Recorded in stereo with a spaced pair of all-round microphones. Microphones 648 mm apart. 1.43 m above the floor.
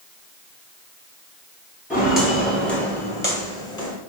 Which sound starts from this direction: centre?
Footsteps, at 1.9 s.